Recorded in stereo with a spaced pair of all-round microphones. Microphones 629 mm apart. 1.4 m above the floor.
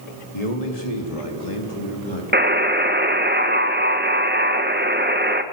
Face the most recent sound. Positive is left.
turn(degrees=-15)  # may be behind; listen again after turning